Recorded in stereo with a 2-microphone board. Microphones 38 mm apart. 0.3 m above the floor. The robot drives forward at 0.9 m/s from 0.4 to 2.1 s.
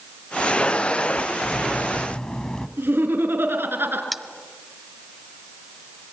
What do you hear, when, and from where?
1.4 s cutlery clinking: 25° left (ahead or behind), 0.9 m; by 2.7 s 20° left (ahead or behind), 1.4 m
2.8 s laughter: 70° right (ahead or behind), 4.5 m
4.1 s cutlery clinking: centre (ahead or behind), 1.2 m